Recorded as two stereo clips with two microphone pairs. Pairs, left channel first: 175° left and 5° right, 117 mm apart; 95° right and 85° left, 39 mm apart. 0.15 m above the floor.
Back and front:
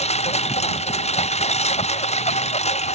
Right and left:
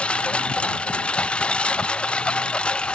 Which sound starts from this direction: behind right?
A lawn mower, at 0.0 s.